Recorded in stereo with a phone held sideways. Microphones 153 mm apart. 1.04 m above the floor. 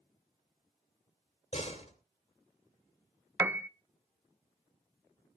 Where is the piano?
10° right (ahead or behind), 0.8 m.